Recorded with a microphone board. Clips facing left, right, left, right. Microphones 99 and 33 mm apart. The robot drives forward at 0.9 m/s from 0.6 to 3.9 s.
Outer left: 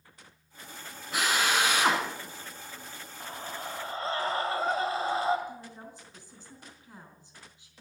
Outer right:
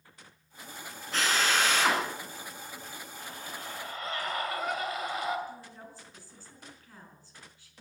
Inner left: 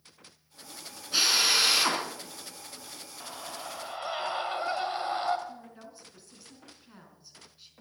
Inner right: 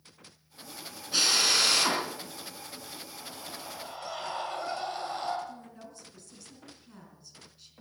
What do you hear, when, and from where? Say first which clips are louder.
1.1 s a drill: outer left 1 dB, inner left 1 dB; 10° left (ahead or behind), 4.5 m; by 2.0 s 15° left (ahead or behind), 3.5 m
3.2 s a scream: outer left 5 dB, inner left 5 dB; 35° left (ahead or behind), 1.9 m; by 5.4 s 30° left (ahead or behind), 2.5 m
5.5 s a woman speaking: outer left 2 dB, even; 20° left (ahead or behind), 4.5 m